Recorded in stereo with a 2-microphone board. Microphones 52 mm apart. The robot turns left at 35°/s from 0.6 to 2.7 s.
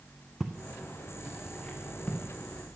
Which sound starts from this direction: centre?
Footsteps, at 0.4 s.